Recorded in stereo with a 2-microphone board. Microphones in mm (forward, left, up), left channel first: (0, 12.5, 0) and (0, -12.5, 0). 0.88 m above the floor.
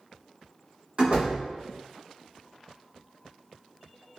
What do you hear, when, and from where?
1.0 s a door slam: 45° right (ahead or behind), 1.1 m